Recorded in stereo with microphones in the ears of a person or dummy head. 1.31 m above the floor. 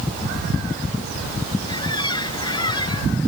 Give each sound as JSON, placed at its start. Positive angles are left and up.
{"t": 1.7, "sound": "a squeak", "side_deg": 30}